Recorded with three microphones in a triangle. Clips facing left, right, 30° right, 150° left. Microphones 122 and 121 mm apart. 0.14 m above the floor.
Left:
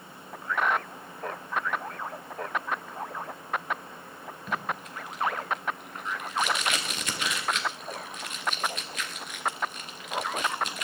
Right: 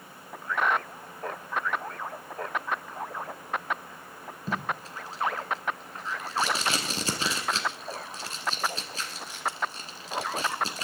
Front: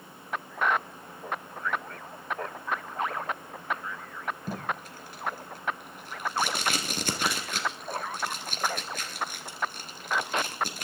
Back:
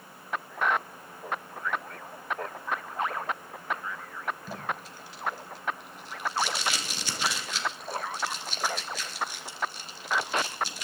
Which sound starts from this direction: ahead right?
Tape being pulled, at 4.5 s.